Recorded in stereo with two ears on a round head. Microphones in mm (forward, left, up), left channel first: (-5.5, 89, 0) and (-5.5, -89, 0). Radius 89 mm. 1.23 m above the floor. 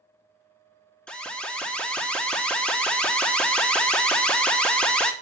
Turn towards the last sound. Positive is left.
turn(degrees=5)  # may be behind; listen again after turning